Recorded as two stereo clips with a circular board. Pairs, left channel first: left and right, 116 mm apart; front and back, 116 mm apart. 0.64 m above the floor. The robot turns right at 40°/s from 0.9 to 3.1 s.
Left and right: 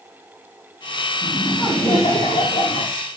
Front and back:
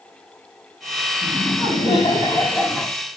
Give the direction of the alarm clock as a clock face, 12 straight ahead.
No alarm clock in this recording.